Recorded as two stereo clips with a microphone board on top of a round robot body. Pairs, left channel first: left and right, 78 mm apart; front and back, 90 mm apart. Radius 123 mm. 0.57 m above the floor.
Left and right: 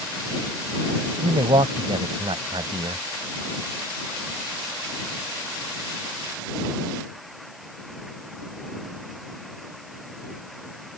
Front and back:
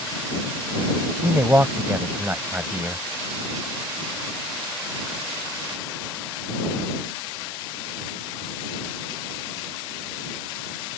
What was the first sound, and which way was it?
A man speaking, 110° right.